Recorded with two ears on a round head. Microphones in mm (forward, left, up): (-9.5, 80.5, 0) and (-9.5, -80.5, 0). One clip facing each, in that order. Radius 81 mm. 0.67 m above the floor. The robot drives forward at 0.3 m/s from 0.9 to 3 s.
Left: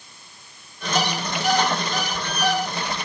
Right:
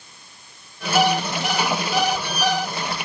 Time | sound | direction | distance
0.9 | an alarm clock | 40° right (ahead or behind) | 1.1 m